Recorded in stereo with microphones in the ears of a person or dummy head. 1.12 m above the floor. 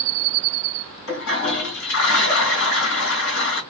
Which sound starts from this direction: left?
A toilet flushing, at 1.1 s.